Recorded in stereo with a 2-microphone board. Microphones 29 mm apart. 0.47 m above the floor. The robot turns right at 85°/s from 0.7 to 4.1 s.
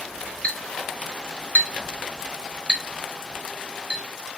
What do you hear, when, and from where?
0.4 s a clink: 40° left (ahead or behind), 3 m; by 4.0 s 35° right (ahead or behind), 3 m